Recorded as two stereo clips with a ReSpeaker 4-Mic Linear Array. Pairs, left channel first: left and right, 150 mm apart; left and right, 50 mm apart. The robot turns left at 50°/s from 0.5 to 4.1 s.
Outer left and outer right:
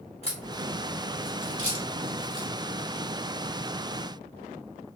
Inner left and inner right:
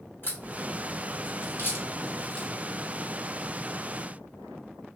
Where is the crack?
45° left (ahead or behind), 1.6 m; by 2.5 s 25° left (ahead or behind), 1.6 m.